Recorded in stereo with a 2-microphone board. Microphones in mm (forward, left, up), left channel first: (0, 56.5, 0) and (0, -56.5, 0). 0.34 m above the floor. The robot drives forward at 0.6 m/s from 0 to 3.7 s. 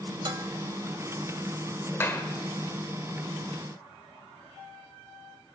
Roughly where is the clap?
Left.